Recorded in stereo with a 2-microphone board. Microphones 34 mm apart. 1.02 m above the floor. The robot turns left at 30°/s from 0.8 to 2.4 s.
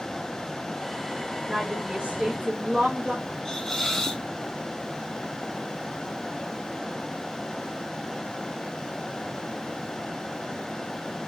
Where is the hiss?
15° left (ahead or behind), 0.9 m.